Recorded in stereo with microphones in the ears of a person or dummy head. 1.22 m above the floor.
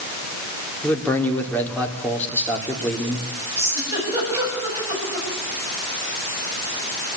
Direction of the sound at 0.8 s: 10° left (ahead or behind).